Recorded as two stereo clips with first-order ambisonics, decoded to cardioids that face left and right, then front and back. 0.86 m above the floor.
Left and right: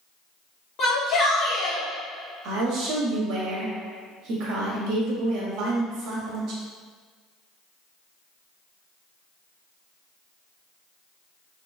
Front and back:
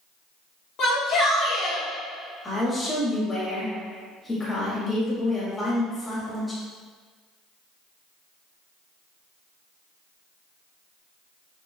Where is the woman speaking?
80° right, 1.2 m.